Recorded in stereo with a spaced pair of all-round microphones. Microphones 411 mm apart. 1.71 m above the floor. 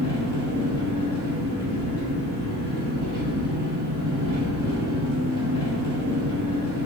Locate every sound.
0.0 s an engine running: 15° left (ahead or behind), 1.5 m